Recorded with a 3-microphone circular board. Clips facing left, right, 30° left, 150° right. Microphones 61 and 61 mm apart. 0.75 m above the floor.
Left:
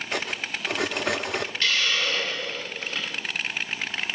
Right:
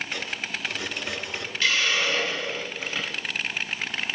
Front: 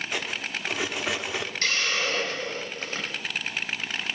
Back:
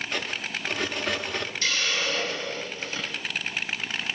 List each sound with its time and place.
0.1 s cutlery clinking: 110° left, 0.7 m
1.6 s a hiss: 5° right, 4.5 m